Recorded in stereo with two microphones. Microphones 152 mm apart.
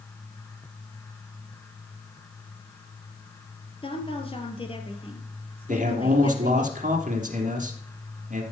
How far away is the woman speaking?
About 2.5 m.